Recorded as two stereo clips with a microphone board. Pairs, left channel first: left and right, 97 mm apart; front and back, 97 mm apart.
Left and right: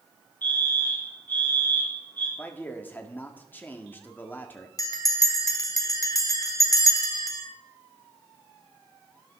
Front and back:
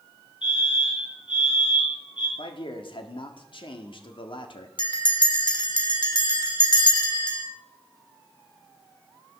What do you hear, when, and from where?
0.4 s a fire alarm: 20° left, 5 m
2.4 s a man speaking: 20° left, 1.9 m
4.8 s a bell: 35° left, 1.8 m